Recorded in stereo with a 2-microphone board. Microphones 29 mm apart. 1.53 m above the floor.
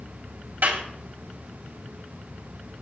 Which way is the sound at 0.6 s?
80° right.